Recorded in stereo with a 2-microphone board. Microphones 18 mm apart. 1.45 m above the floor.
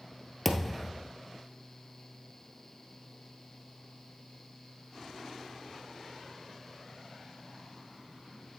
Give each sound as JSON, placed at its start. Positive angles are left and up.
{"t": 0.5, "sound": "a thud", "side_deg": -5, "distance_m": 1.5}